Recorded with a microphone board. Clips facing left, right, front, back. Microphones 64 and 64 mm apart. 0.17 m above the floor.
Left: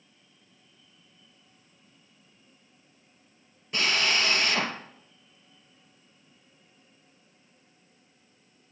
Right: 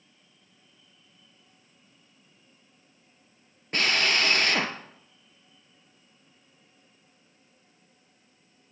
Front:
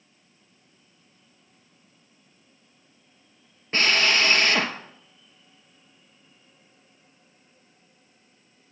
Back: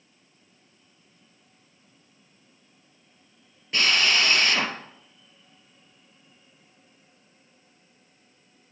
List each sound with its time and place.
3.7 s a drill: 55° right, 2.5 m